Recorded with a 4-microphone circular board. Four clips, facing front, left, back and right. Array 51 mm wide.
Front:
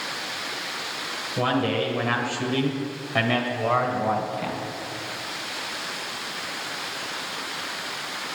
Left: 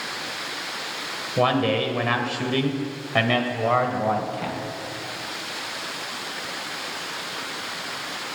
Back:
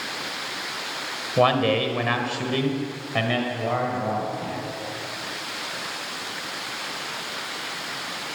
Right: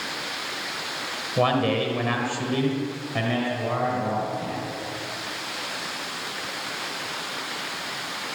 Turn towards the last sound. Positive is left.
turn(degrees=70)